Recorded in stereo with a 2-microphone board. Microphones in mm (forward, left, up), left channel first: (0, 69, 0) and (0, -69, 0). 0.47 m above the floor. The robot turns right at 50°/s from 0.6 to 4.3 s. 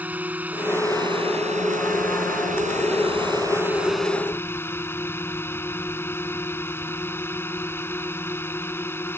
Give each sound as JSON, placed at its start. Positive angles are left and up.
{"t": 0.0, "sound": "a drone", "azimuth_deg": -170}